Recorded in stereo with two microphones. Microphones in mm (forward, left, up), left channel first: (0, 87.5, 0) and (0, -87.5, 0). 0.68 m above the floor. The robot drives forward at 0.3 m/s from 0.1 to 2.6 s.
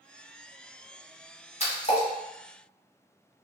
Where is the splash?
40° left (ahead or behind), 1.1 m; by 2.1 s 35° left (ahead or behind), 1.2 m.